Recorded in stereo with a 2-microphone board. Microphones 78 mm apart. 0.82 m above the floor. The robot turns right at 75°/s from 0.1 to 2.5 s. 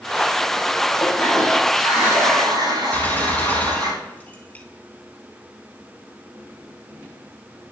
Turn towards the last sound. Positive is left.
turn(degrees=20)  # may be behind; listen again after turning